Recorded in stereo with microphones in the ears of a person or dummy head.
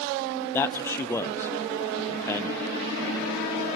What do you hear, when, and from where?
0.5 s a man speaking: 15° left (ahead or behind), 0.6 m